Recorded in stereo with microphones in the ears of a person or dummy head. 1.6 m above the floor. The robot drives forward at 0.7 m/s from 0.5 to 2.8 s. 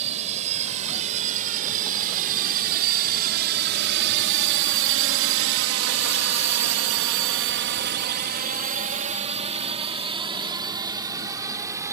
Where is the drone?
35° right (ahead or behind); by 11.9 s 15° right (ahead or behind).